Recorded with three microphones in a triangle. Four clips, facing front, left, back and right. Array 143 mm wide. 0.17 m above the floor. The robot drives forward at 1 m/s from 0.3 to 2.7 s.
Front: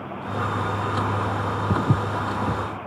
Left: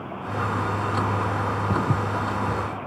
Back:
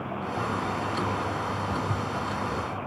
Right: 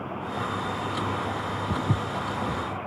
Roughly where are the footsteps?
Ahead.